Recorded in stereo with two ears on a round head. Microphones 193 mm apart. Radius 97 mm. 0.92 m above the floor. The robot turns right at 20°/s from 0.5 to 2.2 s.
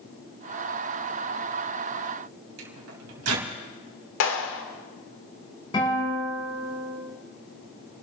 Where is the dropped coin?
No dropped coin in this recording.